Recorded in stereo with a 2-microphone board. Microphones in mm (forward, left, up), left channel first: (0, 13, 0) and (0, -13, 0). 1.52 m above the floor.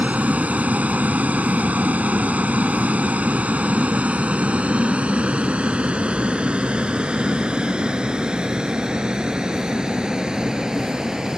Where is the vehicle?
75° right (ahead or behind); by 11.4 s 25° right (ahead or behind).